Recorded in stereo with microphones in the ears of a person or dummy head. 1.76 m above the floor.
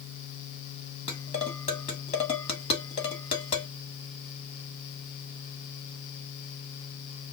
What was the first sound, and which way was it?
Dishes clattering, 30° left (ahead or behind).